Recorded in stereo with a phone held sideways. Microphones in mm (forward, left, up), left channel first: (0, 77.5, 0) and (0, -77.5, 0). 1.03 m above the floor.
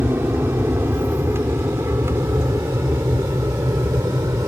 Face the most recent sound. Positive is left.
turn(degrees=-20)  # may be behind; listen again after turning